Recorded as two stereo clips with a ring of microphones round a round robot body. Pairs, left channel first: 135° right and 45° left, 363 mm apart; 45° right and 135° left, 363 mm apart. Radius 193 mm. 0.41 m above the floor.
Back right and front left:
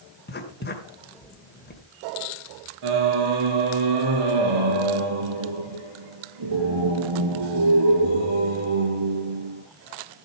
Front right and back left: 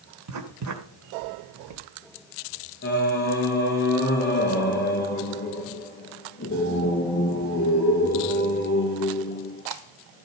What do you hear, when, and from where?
0.3 s writing: 165° left, 2 m
2.8 s singing: 20° left, 3.5 m